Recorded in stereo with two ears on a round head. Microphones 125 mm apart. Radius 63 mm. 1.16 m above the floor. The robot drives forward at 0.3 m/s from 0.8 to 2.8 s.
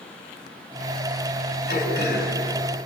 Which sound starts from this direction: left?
Throat clearing, at 1.7 s.